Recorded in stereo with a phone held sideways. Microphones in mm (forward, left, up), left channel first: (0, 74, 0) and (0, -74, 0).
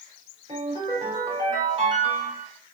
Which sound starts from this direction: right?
A ringtone, at 0.5 s.